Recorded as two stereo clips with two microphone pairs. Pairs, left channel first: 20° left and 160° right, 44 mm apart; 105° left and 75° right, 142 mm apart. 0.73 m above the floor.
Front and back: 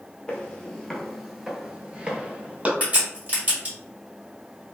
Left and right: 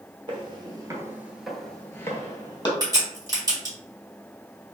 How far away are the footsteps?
About 0.9 m.